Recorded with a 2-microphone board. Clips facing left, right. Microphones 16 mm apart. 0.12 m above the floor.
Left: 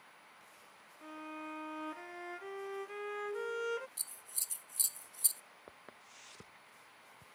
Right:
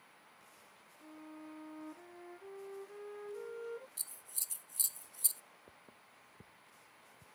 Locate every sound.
1.0 s a violin: 70° left (ahead or behind)
4.0 s scissors: 15° left (ahead or behind)
5.7 s footsteps: 90° left